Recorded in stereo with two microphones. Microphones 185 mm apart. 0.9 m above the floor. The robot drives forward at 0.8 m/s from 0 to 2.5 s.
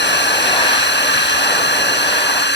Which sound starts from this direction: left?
A drone, at 0.0 s.